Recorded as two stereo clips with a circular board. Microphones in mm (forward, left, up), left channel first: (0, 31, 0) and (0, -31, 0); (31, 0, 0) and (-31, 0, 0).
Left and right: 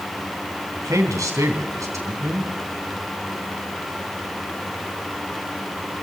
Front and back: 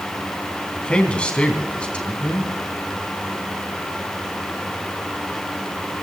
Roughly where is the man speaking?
Right.